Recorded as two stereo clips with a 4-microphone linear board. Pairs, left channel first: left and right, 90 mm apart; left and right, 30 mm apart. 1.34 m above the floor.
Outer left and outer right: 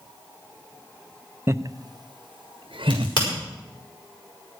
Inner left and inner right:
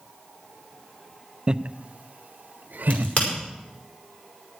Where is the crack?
55° left (ahead or behind), 5 m.